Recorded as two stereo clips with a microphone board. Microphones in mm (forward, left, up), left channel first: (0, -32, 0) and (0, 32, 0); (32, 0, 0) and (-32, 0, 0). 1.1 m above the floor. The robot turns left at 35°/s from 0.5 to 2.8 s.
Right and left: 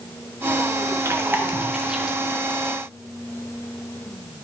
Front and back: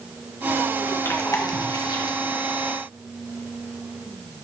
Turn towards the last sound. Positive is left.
turn(degrees=-20)